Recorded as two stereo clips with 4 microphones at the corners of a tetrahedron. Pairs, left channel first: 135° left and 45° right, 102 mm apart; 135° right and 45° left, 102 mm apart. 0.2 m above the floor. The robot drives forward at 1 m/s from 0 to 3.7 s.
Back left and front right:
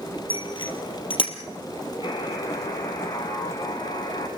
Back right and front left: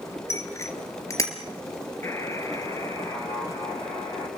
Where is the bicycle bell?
165° left, 2.5 m; by 1.3 s 170° left, 3.5 m.